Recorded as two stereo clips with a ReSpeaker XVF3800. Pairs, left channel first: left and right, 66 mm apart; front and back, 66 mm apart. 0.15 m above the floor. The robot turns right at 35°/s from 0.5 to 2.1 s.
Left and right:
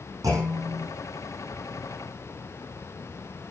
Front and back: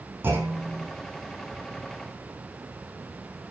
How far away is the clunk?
About 4 m.